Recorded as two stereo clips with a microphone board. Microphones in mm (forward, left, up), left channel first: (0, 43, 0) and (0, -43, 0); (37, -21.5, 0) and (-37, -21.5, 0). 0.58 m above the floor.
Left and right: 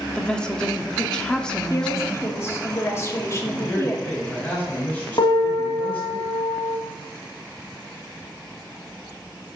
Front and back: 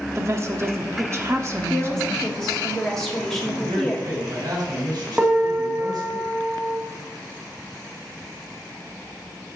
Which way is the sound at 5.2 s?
105° left.